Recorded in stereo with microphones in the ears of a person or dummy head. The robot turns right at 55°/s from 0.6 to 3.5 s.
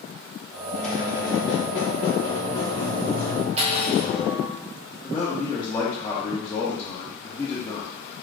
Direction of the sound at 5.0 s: 25° left (ahead or behind).